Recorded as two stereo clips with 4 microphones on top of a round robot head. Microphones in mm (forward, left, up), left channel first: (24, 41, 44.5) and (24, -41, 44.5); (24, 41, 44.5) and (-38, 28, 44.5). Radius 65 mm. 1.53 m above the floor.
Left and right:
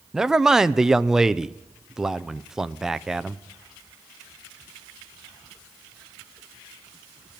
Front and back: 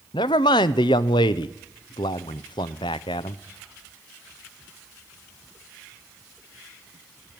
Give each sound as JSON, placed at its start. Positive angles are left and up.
{"t": 0.1, "sound": "a man speaking", "azimuth_deg": -5, "distance_m": 0.5}